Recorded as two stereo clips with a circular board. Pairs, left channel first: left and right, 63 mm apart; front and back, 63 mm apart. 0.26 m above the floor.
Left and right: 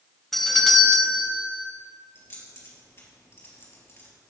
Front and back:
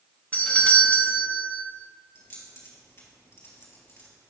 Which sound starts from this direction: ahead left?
Keys jangling, at 2.1 s.